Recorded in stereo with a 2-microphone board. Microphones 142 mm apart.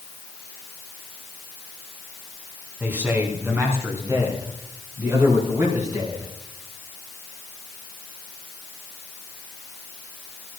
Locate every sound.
2.8 s a man speaking: 10° right (ahead or behind), 3 m; by 6.3 s 30° right (ahead or behind), 5 m